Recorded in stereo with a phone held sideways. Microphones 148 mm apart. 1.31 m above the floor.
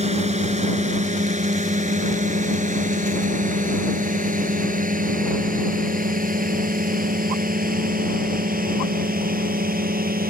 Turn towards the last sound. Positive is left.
turn(degrees=-75)  # may be behind; listen again after turning